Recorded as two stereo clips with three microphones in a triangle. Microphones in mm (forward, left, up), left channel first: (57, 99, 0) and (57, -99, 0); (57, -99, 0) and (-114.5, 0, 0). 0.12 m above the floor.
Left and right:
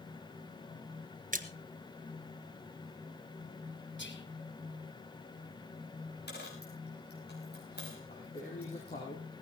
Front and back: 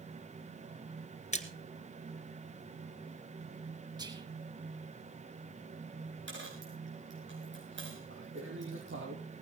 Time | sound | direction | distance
1.3 | a splash | 70° right | 1.2 m
4.0 | whispering | 80° left | 3 m
6.3 | a dropped coin | 125° left | 4.5 m
8.1 | a man speaking | 140° left | 5 m